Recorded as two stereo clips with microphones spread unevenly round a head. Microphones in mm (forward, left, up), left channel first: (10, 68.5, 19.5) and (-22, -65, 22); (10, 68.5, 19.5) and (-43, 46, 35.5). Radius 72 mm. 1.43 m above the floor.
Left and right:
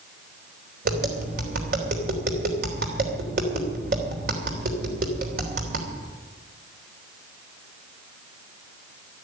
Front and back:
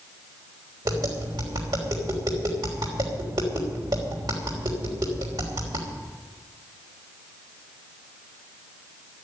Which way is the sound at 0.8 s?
125° right.